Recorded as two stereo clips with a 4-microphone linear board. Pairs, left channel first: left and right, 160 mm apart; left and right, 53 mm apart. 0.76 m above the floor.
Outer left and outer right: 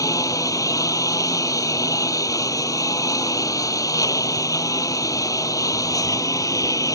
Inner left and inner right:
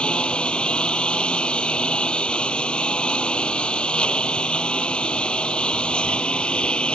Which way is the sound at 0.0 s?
20° left (ahead or behind).